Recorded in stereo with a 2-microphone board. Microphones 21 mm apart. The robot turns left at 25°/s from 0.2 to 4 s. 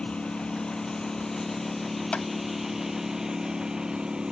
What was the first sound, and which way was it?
A lawn mower, 55° left.